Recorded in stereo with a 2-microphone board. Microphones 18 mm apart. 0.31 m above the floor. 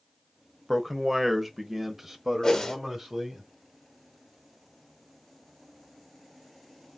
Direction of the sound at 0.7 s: 10° right (ahead or behind).